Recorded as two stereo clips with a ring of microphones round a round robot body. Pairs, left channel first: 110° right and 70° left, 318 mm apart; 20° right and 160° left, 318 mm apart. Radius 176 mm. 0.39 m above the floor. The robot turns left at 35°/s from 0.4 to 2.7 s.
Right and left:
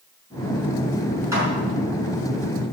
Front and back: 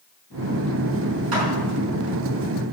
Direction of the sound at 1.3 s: 150° left.